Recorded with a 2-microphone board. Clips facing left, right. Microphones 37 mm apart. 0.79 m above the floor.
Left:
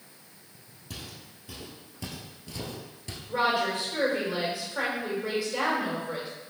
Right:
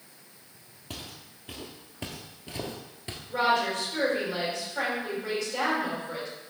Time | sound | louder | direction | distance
0.9 | footsteps | right 1 dB | 40° right (ahead or behind) | 1.3 m
3.3 | a woman speaking | right 1 dB | 10° left (ahead or behind) | 2.5 m